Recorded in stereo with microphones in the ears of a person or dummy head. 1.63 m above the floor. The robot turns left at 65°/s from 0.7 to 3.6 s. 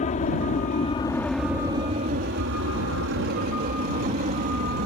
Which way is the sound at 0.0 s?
40° left (ahead or behind).